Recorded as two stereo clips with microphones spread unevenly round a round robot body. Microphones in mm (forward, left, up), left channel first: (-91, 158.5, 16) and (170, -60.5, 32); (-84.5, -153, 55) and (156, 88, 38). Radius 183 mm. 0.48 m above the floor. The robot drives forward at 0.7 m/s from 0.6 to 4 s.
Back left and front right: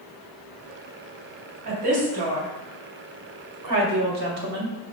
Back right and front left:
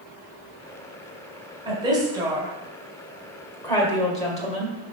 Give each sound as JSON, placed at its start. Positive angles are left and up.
{"t": 1.6, "sound": "a woman speaking", "azimuth_deg": -30, "distance_m": 2.5}